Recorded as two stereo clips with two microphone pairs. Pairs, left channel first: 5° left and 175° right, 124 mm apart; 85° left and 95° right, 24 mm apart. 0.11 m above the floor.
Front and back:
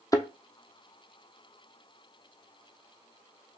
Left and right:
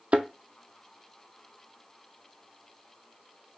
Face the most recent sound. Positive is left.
turn(degrees=-55)